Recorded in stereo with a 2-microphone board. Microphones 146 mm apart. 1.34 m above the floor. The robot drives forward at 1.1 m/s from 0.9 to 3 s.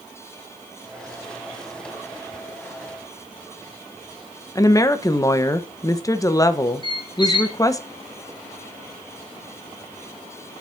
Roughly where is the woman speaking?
Left.